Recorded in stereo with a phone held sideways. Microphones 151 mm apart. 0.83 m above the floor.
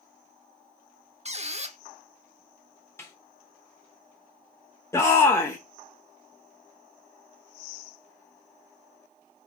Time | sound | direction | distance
1.2 | a squeak | 45° right (ahead or behind) | 0.7 m
3.0 | a snare drum | 15° left (ahead or behind) | 1.6 m
4.9 | a shout | 20° left (ahead or behind) | 0.9 m